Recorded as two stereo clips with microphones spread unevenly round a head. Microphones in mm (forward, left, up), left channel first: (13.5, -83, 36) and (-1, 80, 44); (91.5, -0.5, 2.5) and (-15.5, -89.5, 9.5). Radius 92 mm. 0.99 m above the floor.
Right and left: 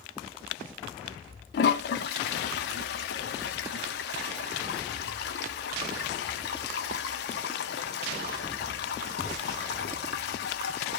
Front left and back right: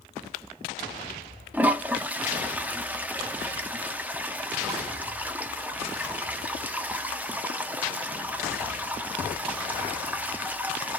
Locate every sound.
1.5 s a toilet flushing: 65° right, 0.6 m